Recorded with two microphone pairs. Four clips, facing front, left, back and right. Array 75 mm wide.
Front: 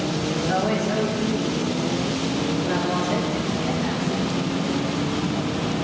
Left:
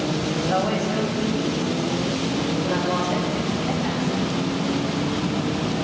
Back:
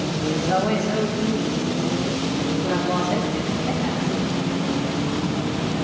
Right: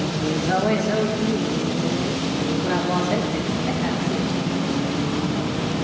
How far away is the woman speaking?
About 4 m.